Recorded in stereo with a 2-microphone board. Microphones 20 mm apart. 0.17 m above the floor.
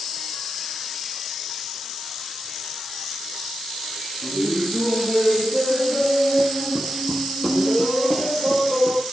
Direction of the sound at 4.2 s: 55° right (ahead or behind).